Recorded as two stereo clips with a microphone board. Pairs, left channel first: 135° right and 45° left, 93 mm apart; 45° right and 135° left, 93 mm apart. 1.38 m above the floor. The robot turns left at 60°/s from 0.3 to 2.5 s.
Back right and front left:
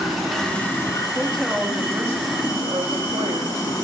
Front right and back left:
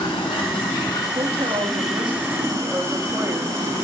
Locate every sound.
0.0 s running water: 45° right, 3.5 m; by 3.9 s straight behind, 3.5 m
1.1 s a woman speaking: 150° left, 2.5 m; by 3.8 s 70° left, 2.5 m